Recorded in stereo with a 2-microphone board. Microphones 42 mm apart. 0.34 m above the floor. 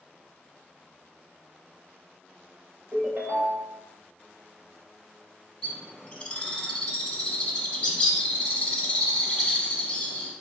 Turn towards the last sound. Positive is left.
turn(degrees=25)  # may be behind; listen again after turning